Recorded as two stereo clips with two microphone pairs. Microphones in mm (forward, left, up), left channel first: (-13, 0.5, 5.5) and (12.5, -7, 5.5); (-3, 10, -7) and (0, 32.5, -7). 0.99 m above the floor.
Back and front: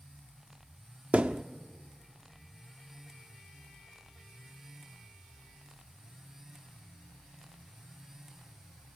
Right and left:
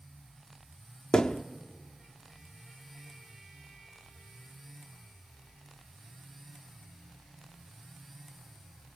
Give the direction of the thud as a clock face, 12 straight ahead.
2 o'clock.